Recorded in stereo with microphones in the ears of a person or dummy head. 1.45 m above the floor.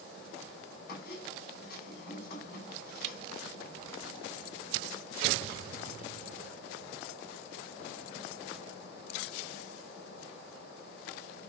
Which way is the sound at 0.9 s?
60° left (ahead or behind).